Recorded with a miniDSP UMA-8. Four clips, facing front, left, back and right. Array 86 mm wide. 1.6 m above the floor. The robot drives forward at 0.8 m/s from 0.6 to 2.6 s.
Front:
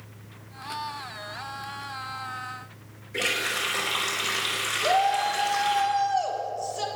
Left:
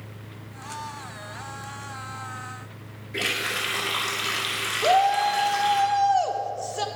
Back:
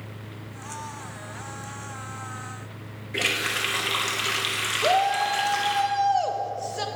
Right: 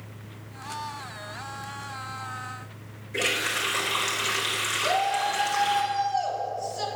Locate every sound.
3.1 s a running tap: 170° left, 2 m
4.8 s a shout: 130° left, 1.1 m